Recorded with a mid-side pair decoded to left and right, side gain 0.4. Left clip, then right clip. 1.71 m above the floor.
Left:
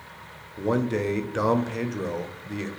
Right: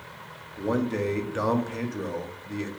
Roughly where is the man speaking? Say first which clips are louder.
Left 2 dB; ahead.